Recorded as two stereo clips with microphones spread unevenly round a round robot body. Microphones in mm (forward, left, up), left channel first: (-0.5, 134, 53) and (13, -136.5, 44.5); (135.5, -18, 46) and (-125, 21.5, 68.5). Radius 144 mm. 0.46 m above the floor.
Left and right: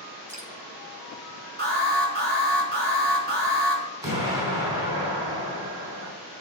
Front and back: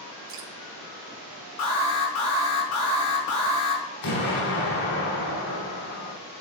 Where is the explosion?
10° right, 4.5 m.